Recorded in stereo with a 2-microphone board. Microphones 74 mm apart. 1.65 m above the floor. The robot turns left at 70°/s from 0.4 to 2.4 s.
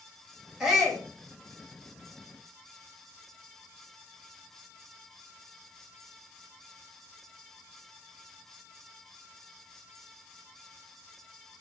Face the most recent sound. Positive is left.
turn(degrees=65)